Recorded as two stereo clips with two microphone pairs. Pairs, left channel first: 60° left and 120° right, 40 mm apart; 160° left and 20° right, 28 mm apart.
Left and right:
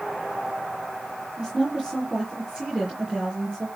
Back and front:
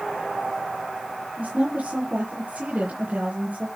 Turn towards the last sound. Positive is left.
turn(degrees=-60)